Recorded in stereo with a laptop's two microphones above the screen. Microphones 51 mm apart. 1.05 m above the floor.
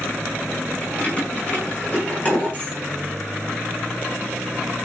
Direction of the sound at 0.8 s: 25° left (ahead or behind).